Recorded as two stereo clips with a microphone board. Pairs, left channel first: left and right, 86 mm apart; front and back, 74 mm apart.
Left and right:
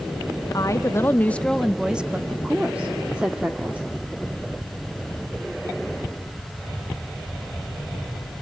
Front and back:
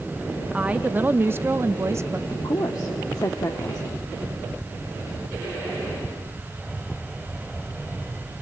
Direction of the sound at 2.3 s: 15° right.